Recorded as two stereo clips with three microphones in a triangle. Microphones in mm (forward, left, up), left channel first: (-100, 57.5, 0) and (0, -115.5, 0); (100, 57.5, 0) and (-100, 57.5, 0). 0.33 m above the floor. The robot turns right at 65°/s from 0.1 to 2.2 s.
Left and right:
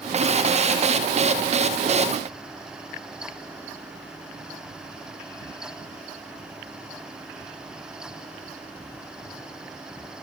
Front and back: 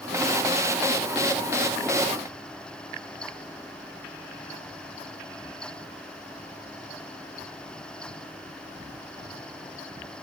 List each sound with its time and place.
Only background noise.